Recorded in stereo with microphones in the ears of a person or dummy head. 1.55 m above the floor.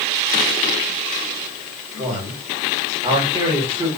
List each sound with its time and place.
2.0 s a man speaking: 25° right (ahead or behind), 1.4 m